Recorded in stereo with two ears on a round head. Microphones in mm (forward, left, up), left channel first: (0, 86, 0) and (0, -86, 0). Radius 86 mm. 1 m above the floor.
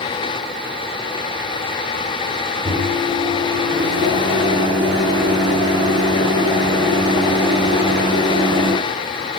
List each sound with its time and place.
2.6 s a microwave: 25° right (ahead or behind), 6 m